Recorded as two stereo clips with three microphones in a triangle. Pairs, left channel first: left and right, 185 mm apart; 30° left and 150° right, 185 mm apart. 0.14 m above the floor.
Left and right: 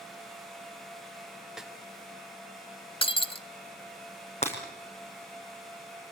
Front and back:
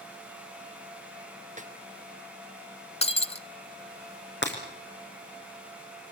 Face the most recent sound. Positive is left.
turn(degrees=35)